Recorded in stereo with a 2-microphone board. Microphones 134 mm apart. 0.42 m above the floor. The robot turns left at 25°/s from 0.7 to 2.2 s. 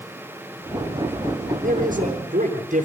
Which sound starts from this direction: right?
A man speaking, at 1.6 s.